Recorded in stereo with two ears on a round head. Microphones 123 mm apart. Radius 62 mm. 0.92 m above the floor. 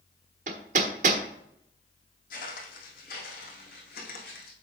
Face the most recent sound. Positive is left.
turn(degrees=75)  # may be behind; listen again after turning